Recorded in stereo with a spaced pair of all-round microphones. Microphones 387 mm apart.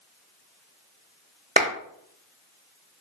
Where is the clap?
20° right (ahead or behind), 0.8 m.